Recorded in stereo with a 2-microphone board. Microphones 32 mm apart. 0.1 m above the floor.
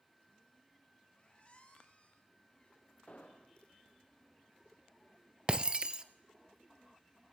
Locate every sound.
1.1 s a squeak: 35° left (ahead or behind), 5 m
3.1 s an explosion: 45° left (ahead or behind), 5 m
5.5 s breaking glass: 30° right (ahead or behind), 1.0 m